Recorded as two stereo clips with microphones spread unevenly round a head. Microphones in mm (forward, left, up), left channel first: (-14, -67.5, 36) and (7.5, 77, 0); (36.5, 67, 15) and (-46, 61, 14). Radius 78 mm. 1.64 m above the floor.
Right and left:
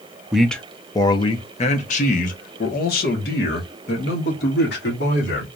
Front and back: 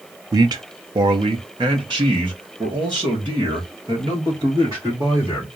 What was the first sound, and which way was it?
A man speaking, straight behind.